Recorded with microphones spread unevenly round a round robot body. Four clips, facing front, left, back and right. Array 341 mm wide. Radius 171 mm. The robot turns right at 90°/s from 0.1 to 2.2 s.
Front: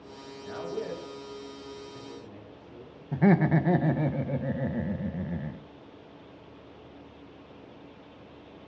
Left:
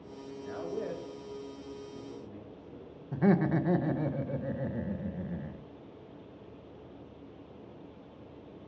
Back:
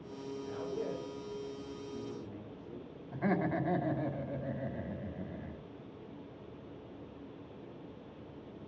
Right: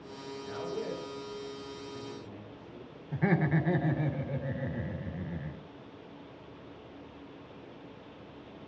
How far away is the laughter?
About 1.3 m.